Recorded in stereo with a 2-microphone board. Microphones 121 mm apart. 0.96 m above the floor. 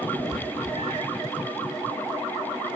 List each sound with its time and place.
0.1 s a cat meowing: 65° right (ahead or behind), 1.0 m